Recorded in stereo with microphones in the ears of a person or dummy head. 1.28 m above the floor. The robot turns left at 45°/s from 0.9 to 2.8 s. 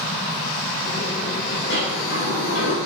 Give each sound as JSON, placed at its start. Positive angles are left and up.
{"t": 1.7, "sound": "a sliding door", "azimuth_deg": 120, "distance_m": 2.5}